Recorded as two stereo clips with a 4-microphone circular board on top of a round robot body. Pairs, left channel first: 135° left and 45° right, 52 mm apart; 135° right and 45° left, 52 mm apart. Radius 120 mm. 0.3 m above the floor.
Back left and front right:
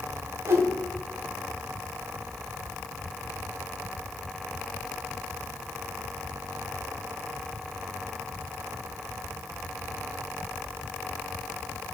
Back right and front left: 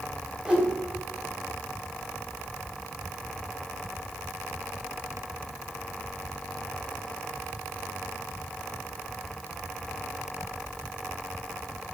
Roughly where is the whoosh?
Ahead right.